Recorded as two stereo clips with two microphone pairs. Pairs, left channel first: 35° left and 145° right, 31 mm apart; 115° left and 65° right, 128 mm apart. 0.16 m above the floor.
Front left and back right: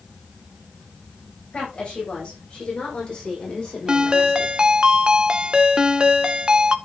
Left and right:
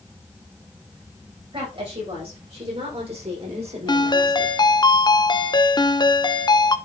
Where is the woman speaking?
25° right, 8 m; by 4.5 s 35° right, 7 m.